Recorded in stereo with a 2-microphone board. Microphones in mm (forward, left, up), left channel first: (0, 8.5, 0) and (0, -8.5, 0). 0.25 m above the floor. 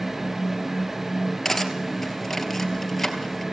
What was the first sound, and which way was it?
Cutlery clinking, 15° left (ahead or behind).